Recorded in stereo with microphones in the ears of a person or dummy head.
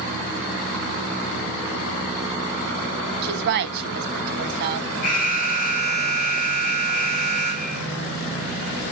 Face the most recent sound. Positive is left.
turn(degrees=45)  # may be behind; listen again after turning